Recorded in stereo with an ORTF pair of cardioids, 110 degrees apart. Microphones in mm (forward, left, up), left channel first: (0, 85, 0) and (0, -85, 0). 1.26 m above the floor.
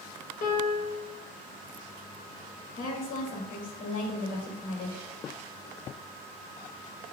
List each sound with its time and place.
0.4 s a piano: 50° left, 2 m
2.7 s a woman speaking: 65° left, 2.5 m